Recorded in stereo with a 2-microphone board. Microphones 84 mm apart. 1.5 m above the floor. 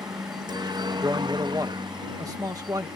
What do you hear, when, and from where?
0.0 s a helicopter: 55° right (ahead or behind); by 3.0 s 65° right (ahead or behind)
1.0 s a man speaking: 45° right (ahead or behind)